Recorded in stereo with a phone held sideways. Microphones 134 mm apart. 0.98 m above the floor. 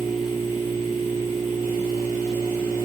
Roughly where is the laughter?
No laughter in this recording.